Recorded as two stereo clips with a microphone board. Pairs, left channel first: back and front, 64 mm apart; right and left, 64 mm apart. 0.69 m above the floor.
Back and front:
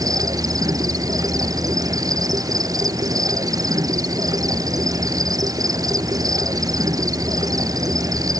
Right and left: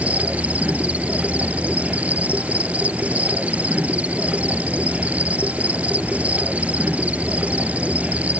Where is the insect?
20° left.